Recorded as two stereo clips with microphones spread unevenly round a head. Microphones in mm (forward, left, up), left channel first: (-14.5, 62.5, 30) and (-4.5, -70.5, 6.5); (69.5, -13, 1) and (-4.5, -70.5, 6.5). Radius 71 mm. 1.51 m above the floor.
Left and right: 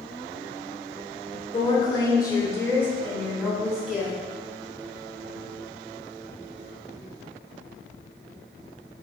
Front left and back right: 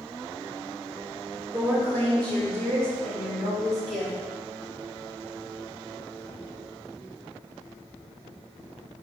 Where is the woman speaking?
150° left, 2.5 m; by 4.1 s 170° right, 3 m.